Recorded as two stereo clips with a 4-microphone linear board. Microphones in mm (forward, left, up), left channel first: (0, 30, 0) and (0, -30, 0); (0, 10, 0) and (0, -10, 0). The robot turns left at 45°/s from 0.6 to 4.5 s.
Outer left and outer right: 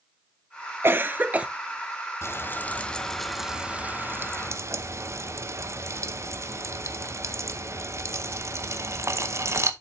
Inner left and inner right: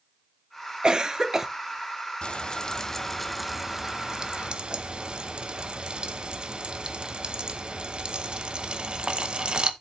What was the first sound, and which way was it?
A cough, 40° right (ahead or behind).